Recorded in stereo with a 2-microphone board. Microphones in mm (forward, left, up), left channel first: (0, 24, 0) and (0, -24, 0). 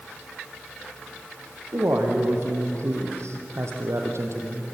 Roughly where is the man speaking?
Right.